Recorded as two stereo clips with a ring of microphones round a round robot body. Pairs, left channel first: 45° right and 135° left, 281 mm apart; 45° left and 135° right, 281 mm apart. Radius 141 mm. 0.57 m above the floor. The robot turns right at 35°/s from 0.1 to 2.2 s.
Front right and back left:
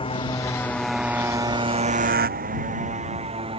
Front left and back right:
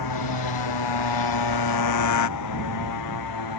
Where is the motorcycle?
25° left; by 3.6 s 60° left.